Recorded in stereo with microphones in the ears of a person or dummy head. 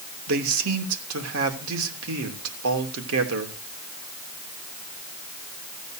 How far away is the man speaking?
About 3 m.